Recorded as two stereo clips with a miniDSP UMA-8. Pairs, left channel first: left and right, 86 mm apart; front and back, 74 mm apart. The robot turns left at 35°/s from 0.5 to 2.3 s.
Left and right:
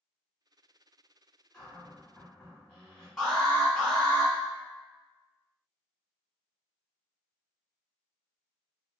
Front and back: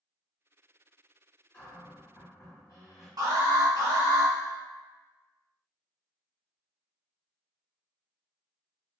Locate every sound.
1.5 s a cupboard door: 40° left, 1.7 m; by 3.1 s 15° left, 1.7 m
3.2 s an alarm: 170° left, 1.4 m